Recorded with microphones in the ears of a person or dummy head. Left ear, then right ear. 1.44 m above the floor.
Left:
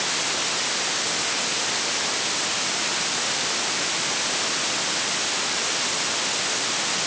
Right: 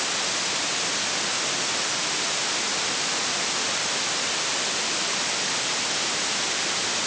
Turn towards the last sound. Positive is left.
No sound to turn to.